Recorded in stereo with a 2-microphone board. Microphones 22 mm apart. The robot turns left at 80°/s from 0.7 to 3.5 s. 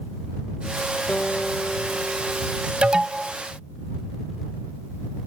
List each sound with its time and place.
1.1 s a guitar: 85° left; by 2.7 s 45° right
2.8 s an alarm: 130° right; by 3.4 s 175° right